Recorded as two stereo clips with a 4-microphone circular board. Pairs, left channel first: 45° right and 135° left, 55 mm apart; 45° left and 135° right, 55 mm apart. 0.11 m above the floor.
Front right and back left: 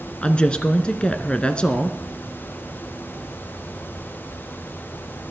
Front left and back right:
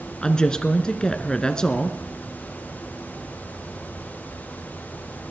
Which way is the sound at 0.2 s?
10° right.